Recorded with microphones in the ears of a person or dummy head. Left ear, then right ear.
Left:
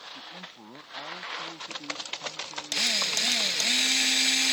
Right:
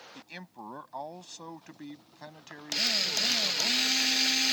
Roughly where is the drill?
Centre.